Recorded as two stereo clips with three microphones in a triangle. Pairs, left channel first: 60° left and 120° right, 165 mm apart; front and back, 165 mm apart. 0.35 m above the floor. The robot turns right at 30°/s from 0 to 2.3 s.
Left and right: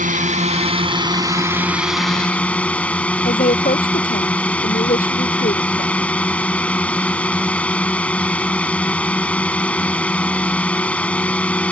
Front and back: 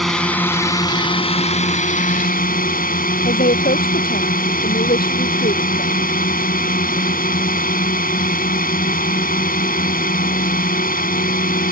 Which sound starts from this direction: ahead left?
A woman speaking, at 3.2 s.